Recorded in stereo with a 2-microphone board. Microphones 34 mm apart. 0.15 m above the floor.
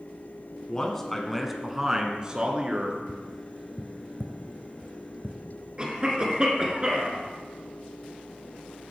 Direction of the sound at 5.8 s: 25° right (ahead or behind).